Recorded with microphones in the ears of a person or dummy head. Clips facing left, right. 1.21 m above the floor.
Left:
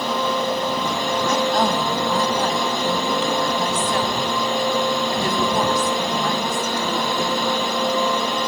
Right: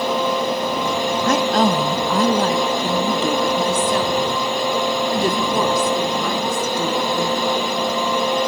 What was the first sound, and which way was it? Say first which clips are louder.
A woman speaking: right 3 dB; 50° right (ahead or behind).